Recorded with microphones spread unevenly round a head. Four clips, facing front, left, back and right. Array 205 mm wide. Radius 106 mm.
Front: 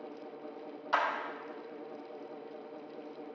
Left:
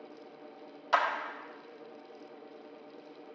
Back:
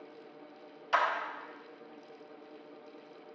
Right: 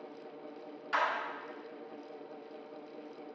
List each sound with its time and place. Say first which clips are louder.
0.9 s a clap: left 4 dB, back 2 dB; 110° left, 1.3 m